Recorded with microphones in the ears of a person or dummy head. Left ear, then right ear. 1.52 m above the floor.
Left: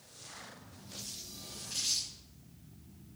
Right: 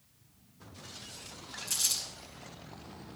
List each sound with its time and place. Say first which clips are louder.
1.7 s crumpling: right 2 dB; 45° right (ahead or behind), 5 m